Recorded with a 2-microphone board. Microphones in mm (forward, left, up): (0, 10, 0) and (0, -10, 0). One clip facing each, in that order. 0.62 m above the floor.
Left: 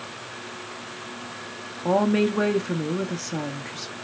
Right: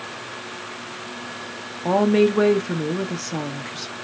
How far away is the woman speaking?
About 0.6 m.